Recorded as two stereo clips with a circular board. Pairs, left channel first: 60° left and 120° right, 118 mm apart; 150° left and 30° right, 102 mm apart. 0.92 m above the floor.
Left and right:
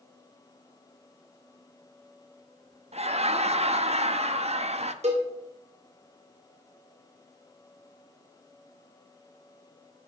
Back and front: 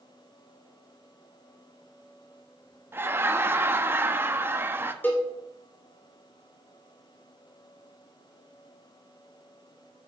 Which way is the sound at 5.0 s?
140° right.